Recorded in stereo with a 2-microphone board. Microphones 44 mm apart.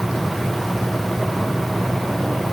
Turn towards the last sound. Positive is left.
No sound to turn to.